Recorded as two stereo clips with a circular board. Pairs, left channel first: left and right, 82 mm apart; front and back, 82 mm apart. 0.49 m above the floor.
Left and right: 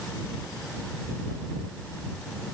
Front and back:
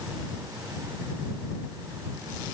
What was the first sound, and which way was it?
Only background noise.